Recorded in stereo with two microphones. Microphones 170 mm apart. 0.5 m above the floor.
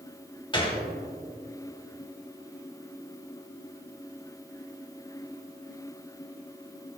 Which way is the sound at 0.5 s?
30° left (ahead or behind).